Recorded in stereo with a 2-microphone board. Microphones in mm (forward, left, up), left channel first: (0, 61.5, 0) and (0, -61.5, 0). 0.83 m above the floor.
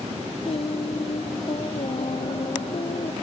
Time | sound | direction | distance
0.5 | singing | 55° left (ahead or behind) | ?